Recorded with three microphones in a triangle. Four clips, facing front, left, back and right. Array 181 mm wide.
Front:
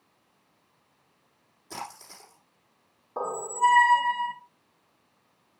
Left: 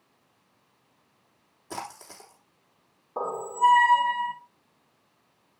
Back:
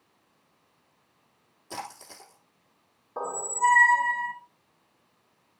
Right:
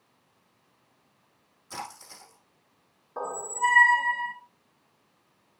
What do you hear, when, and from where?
1.7 s a splash: 105° left, 5 m
3.2 s a squeak: 70° left, 0.8 m